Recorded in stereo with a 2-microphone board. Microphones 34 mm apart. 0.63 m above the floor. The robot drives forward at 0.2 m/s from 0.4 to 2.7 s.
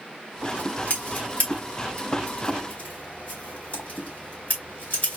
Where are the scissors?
50° left (ahead or behind), 1.9 m; by 5.2 s 40° left (ahead or behind), 2 m.